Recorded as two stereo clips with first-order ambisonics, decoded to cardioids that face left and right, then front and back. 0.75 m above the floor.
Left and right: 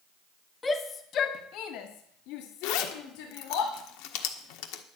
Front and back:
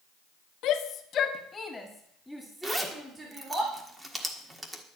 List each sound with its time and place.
0.6 s a shout: 20° left, 1.4 m; by 3.6 s 110° left, 3 m
2.6 s a zipper: 100° left, 1.4 m